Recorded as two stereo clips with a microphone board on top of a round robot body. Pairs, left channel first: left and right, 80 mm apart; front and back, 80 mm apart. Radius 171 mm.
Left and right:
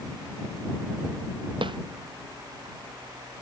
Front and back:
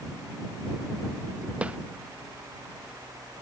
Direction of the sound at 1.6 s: 105° right.